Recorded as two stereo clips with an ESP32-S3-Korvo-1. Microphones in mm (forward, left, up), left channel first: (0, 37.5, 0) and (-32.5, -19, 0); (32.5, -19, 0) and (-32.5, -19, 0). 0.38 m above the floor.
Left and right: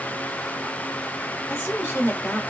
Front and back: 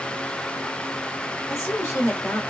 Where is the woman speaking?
10° left, 1.5 m.